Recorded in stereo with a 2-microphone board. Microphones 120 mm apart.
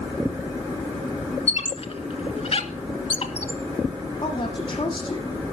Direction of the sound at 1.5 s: 60° left (ahead or behind).